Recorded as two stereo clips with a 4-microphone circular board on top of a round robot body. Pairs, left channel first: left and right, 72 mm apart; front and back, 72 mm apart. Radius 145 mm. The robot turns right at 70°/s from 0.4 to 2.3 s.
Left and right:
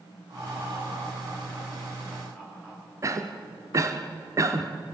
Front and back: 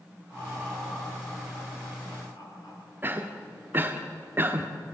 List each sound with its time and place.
0.3 s laughter: 130° right, 9 m; by 2.8 s 5° left, 9 m
3.0 s a cough: 125° right, 1.6 m